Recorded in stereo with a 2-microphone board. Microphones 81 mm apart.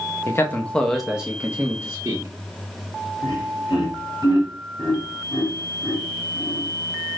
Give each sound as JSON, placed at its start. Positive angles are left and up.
{"t": 0.3, "sound": "a man speaking", "side_deg": 35, "distance_m": 0.7}
{"t": 3.2, "sound": "laughter", "side_deg": 65, "distance_m": 1.3}